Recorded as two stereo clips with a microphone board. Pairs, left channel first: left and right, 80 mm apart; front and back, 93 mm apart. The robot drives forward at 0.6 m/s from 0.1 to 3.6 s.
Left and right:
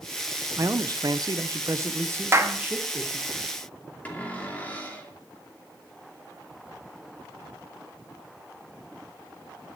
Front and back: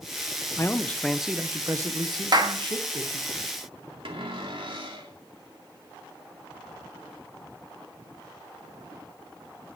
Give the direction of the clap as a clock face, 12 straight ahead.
5 o'clock.